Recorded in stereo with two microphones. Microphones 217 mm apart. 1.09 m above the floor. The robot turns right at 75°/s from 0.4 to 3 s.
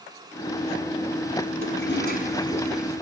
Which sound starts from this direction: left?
A toilet flushing, at 1.6 s.